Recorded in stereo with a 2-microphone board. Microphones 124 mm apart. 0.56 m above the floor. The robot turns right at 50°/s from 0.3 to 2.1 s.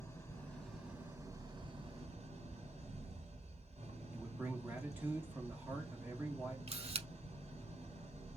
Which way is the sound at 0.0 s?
160° left.